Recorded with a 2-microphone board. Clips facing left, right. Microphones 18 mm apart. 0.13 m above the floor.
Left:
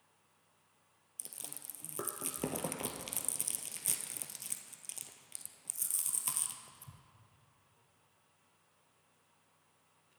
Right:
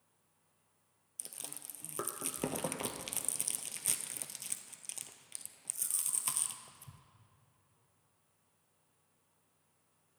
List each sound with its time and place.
1.2 s chewing: 10° right (ahead or behind), 0.6 m